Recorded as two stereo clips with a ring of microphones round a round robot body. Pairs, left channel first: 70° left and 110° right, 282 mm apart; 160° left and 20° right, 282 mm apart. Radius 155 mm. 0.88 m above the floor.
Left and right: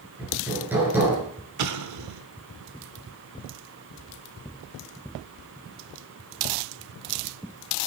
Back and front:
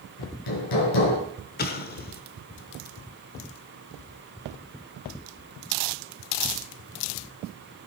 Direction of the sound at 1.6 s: 145° right.